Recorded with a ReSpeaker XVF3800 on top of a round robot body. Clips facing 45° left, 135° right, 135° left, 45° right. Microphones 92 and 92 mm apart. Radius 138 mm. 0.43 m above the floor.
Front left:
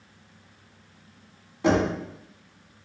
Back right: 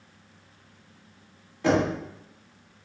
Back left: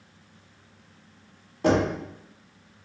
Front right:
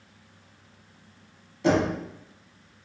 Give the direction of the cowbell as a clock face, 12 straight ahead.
No cowbell in this recording.